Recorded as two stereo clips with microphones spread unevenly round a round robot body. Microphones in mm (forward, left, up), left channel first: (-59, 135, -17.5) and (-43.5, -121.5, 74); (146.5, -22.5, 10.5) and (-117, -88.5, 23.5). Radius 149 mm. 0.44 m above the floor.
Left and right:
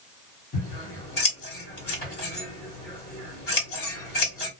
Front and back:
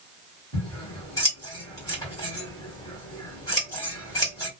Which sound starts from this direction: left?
Scissors, at 0.5 s.